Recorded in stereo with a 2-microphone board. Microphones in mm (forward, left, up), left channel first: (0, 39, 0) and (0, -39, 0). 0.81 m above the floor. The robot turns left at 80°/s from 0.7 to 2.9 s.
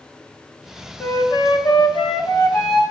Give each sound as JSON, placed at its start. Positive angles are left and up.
{"t": 1.0, "sound": "a flute", "azimuth_deg": 145, "distance_m": 0.9}